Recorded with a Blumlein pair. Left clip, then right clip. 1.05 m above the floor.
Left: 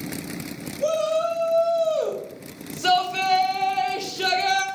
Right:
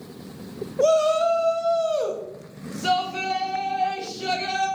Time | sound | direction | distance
0.8 | a shout | 25° right | 2.0 m